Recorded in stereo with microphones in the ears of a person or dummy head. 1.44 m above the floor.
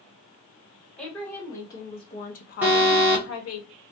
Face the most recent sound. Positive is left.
turn(degrees=-10)  # may be behind; listen again after turning